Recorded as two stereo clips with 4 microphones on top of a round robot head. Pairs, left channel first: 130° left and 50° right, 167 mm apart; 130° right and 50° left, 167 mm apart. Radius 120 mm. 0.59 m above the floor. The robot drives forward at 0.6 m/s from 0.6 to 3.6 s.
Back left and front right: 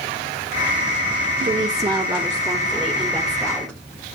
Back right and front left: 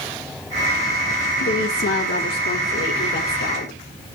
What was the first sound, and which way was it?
A woman speaking, 110° right.